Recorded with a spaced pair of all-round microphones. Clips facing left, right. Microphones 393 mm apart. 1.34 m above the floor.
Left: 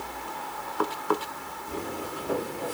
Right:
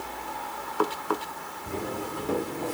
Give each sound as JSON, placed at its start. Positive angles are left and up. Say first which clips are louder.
{"t": 1.7, "sound": "footsteps", "louder": "right 2 dB", "side_deg": -65, "distance_m": 4.5}